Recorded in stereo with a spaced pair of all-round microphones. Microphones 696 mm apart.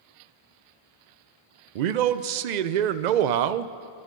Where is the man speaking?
80° right, 0.5 m.